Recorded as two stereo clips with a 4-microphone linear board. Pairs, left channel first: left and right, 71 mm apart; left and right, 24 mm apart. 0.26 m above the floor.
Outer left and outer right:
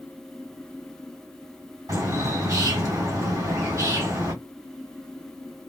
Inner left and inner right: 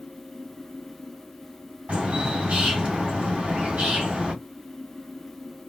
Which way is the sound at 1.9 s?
55° right (ahead or behind).